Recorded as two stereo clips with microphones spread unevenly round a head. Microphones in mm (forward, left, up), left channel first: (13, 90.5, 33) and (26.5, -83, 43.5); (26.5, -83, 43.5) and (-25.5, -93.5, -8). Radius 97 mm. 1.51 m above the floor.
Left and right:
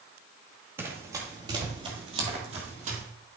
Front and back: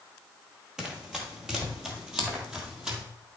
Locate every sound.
0.8 s running footsteps: 15° right, 1.9 m; by 3.0 s 50° right, 2.5 m